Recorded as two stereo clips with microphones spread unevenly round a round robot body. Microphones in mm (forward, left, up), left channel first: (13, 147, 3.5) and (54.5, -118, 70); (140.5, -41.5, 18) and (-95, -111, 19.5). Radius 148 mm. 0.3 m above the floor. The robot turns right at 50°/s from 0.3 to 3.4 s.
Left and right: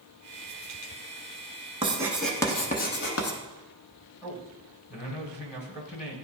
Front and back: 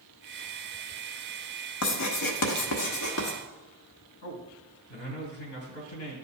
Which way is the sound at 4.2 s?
45° left.